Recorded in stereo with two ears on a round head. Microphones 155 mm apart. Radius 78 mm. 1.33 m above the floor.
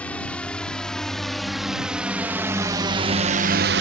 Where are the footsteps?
No footsteps in this recording.